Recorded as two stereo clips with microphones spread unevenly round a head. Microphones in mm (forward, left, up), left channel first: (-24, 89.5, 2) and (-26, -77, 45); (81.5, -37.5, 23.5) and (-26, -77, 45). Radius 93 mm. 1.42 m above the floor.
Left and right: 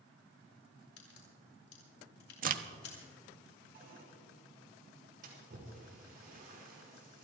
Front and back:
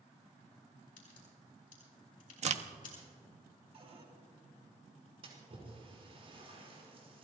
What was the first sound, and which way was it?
A crack, 55° left.